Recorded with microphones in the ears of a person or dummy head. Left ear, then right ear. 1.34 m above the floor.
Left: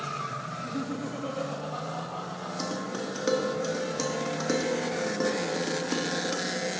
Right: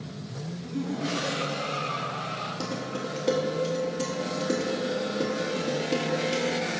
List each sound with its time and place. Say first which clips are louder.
0.5 s laughter: left 1 dB; 5° right (ahead or behind), 0.8 m; by 2.5 s 80° left, 2.5 m
2.6 s dishes clattering: even; 60° left (ahead or behind), 1.4 m